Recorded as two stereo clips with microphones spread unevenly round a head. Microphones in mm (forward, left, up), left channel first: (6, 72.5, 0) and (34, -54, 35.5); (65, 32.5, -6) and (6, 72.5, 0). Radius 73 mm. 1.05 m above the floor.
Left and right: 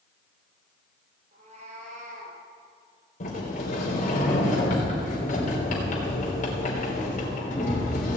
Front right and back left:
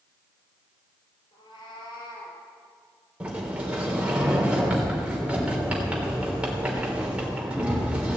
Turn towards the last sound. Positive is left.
turn(degrees=70)